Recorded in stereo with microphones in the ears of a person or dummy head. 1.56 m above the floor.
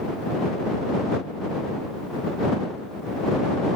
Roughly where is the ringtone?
No ringtone in this recording.